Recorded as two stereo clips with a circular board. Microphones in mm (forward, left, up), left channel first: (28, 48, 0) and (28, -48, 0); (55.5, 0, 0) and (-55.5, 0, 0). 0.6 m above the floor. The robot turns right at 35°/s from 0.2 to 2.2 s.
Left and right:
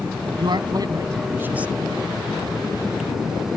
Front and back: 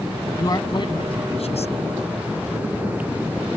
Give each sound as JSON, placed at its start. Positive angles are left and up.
{"t": 0.4, "sound": "a man speaking", "azimuth_deg": -60}